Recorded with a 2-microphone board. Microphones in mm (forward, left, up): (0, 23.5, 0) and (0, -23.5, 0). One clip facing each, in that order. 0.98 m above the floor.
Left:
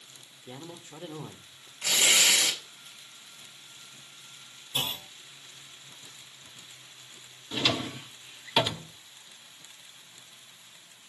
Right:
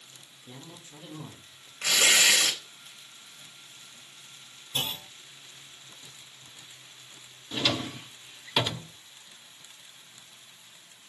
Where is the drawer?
5° left (ahead or behind), 0.7 m.